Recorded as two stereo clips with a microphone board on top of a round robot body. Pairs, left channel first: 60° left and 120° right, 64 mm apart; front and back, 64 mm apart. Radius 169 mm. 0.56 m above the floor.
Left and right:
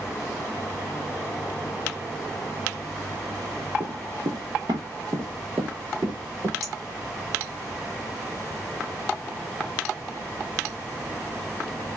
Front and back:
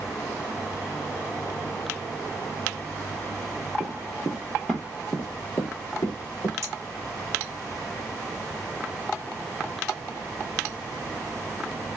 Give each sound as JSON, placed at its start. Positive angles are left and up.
{"t": 3.8, "sound": "running footsteps", "azimuth_deg": -140, "distance_m": 0.7}
{"t": 6.6, "sound": "a clink", "azimuth_deg": -140, "distance_m": 1.4}